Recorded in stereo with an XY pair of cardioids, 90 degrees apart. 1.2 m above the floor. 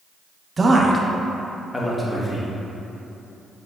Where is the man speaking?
35° right, 0.6 m; by 2.5 s 30° left, 1.2 m.